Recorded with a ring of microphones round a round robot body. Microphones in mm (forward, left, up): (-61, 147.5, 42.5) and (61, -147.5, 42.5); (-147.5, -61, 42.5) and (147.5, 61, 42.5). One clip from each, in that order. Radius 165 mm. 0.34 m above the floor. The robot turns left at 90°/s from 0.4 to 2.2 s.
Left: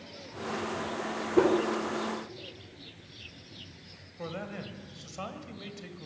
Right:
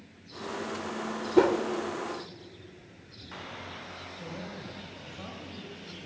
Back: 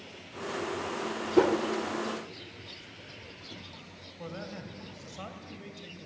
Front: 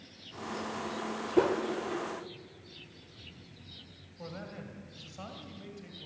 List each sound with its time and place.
1.4 s a whoosh: 95° right, 1.5 m; by 1.6 s 115° right, 1.5 m
4.2 s a man speaking: 130° left, 2 m